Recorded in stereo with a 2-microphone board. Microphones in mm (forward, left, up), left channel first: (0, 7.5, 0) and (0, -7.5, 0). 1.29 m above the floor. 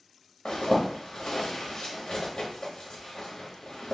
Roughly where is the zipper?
Left.